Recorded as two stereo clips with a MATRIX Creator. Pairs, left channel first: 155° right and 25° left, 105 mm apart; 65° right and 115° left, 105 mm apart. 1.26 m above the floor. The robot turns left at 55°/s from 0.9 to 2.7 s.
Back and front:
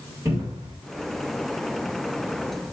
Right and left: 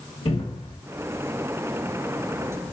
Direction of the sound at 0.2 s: 40° right.